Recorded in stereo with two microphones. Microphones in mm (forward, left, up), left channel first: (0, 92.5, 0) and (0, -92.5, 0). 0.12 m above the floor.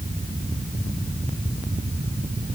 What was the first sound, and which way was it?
Only background noise.